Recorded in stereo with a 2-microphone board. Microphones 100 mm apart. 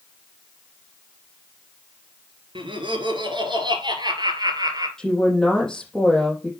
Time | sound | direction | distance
2.5 | laughter | 55° right (ahead or behind) | 2.5 m
5.0 | a woman speaking | 5° left (ahead or behind) | 5 m